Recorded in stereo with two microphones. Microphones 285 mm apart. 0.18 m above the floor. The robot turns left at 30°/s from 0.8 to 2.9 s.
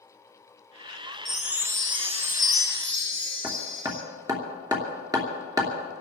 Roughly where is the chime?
Ahead.